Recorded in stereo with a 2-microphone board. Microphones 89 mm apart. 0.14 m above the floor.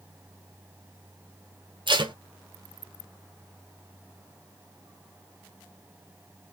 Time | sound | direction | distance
1.9 | tape being pulled | 65° right (ahead or behind) | 0.7 m